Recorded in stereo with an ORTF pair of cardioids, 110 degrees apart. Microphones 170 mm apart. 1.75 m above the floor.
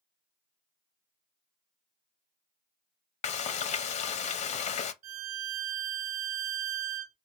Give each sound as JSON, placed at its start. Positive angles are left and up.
{"t": 3.2, "sound": "frying", "azimuth_deg": 45, "distance_m": 0.5}
{"t": 5.0, "sound": "a violin", "azimuth_deg": -40, "distance_m": 0.7}